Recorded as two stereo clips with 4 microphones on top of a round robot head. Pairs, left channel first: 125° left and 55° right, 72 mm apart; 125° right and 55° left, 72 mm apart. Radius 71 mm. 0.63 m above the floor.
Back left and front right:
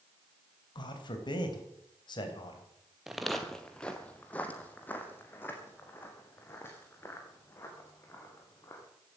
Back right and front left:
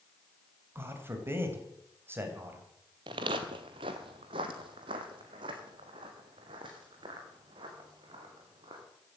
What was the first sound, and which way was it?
A man speaking, 110° left.